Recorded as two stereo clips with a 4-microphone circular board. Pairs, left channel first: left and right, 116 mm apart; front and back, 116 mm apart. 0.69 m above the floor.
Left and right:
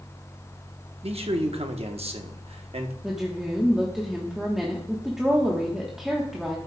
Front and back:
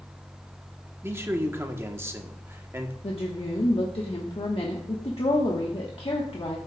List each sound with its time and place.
1.0 s a man speaking: 115° right, 1.1 m
3.0 s a woman speaking: 5° right, 1.2 m